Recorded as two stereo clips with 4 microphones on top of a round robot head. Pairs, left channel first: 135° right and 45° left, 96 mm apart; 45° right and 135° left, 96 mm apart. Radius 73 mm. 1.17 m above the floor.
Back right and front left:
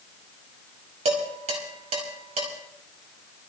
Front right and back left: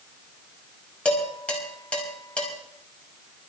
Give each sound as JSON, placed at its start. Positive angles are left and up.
{"t": 1.1, "sound": "dishes clattering", "azimuth_deg": 35, "distance_m": 5.0}